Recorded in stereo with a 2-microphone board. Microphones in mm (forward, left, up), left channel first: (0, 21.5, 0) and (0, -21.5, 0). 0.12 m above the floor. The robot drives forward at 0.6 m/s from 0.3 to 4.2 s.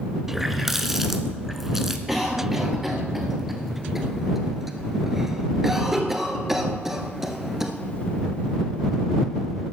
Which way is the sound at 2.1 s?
5° right (ahead or behind).